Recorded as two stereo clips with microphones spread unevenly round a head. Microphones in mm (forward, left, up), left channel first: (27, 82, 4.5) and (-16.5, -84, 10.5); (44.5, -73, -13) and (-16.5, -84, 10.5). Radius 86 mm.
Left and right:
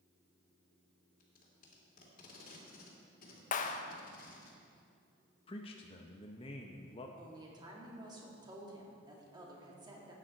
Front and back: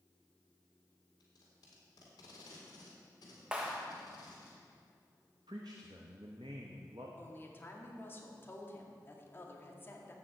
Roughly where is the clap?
Left.